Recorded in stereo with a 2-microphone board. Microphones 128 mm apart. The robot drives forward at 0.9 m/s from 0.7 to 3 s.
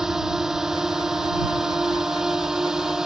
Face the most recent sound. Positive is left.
turn(degrees=-5)  # may be behind; listen again after turning